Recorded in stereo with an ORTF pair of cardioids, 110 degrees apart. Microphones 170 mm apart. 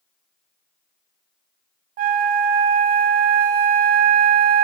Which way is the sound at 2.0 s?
60° right.